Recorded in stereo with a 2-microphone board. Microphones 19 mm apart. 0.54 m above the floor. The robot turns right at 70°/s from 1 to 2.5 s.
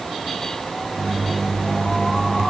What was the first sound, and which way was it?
Only background noise.